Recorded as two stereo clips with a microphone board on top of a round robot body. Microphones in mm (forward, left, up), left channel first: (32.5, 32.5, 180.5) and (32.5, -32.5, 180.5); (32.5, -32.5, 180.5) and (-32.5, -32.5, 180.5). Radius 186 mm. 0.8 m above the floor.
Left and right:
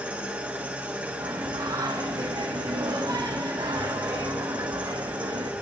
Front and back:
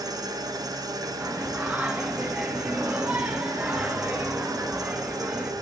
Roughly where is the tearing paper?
I don't hear tearing paper.